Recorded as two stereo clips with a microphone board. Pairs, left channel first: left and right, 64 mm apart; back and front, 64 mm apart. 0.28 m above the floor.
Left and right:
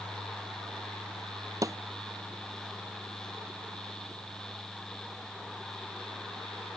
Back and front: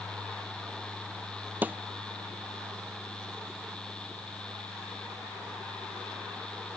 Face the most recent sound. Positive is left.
turn(degrees=-60)